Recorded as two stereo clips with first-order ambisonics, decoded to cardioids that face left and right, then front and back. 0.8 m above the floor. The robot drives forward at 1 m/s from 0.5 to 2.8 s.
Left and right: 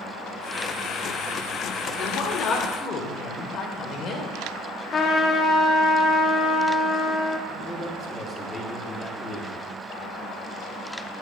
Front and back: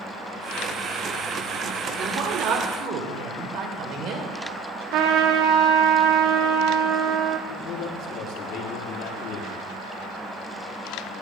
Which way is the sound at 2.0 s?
125° left.